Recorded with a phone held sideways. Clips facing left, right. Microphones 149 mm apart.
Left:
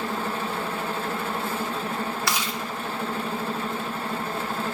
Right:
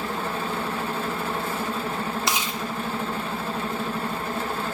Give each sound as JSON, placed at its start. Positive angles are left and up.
{"t": 2.3, "sound": "chewing", "side_deg": -20, "distance_m": 1.8}